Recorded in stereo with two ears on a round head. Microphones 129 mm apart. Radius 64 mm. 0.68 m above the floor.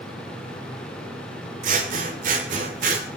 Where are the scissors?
60° right (ahead or behind), 2.5 m.